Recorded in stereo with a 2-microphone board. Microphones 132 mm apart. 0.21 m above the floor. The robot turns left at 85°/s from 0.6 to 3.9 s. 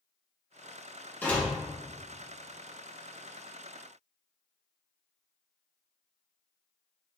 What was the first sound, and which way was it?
A door slam, 15° left (ahead or behind).